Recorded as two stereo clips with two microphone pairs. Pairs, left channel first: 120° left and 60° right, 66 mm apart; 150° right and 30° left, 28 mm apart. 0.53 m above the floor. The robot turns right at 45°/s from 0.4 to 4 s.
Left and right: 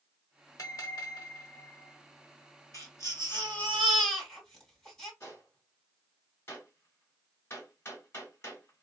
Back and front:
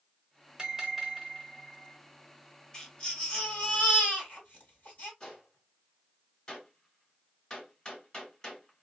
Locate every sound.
0.6 s a bell: 95° left, 1.1 m; by 2.0 s 160° left, 1.1 m
2.7 s a baby crying: 145° left, 1.7 m; by 5.1 s 160° right, 1.7 m
5.2 s a gunshot: 160° left, 1.7 m